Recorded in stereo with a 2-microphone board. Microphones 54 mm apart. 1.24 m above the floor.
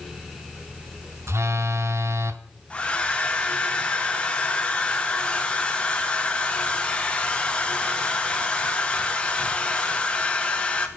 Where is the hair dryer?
20° left (ahead or behind), 1.0 m.